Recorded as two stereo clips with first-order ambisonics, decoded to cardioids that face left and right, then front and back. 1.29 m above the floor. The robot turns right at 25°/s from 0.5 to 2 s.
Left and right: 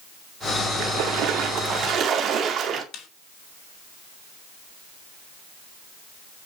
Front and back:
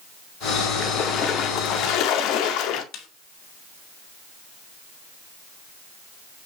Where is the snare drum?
45° left, 2.5 m.